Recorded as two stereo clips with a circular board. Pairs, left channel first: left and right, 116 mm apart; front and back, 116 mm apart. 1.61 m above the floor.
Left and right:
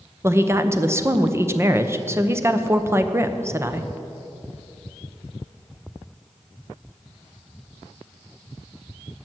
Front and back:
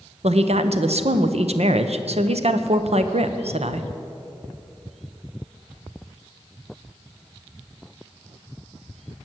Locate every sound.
0.2 s a woman speaking: 155° right, 0.8 m